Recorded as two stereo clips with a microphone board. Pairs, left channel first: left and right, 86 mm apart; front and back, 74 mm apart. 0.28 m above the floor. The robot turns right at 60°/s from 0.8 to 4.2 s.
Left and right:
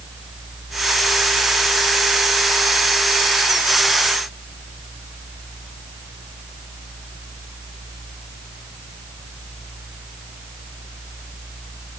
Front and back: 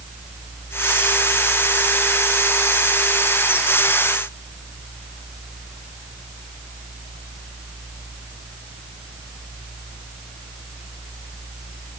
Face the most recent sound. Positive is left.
No sound to turn to.